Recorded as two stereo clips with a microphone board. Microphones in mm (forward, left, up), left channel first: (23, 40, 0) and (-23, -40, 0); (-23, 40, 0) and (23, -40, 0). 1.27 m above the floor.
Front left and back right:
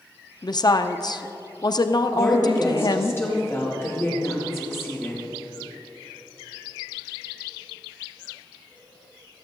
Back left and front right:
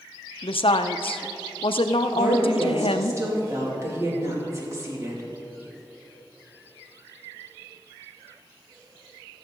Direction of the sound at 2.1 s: 5° right.